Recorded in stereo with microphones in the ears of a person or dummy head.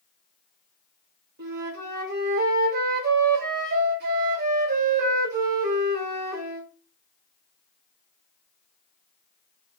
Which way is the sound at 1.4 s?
55° right (ahead or behind).